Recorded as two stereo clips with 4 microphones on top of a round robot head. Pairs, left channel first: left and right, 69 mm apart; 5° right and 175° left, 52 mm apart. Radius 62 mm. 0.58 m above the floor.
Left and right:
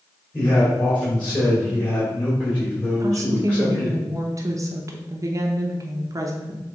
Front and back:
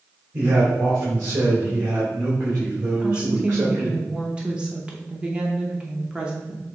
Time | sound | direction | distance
0.3 | a man speaking | 155° left | 2.5 m
3.0 | a woman speaking | 115° right | 1.0 m